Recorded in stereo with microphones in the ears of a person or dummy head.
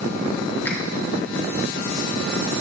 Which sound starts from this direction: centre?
A finger snap, at 0.7 s.